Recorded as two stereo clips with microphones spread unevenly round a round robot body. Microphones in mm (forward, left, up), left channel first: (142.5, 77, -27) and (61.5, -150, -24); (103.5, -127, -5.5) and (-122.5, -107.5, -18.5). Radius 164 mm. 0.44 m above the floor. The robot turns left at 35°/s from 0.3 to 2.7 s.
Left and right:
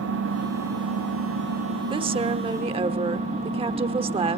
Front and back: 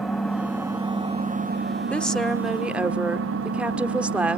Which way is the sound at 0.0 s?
95° right.